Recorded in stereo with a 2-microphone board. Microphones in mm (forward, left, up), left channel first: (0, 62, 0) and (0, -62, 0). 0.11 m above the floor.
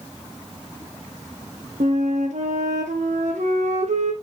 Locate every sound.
1.8 s a flute: 65° right (ahead or behind), 1.5 m